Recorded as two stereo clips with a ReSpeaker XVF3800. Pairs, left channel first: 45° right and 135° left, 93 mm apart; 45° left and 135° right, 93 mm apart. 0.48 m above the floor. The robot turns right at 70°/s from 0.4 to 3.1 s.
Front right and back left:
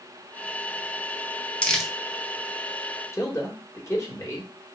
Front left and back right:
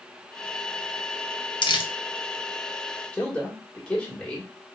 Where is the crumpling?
30° left, 0.6 m; by 1.9 s 50° left, 0.6 m.